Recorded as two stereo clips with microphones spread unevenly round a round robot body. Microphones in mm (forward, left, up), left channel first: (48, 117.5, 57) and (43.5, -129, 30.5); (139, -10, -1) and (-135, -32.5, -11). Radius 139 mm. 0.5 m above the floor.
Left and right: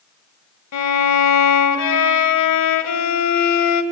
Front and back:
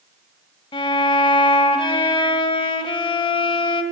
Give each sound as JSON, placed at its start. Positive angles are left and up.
{"t": 0.7, "sound": "a violin", "azimuth_deg": 80, "distance_m": 1.7}